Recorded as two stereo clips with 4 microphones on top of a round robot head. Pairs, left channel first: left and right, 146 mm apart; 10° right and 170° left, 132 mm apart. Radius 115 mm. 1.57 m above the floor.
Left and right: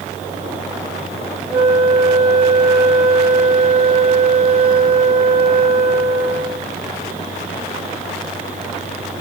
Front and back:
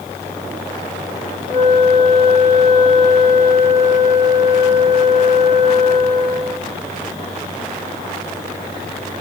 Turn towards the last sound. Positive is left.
turn(degrees=-85)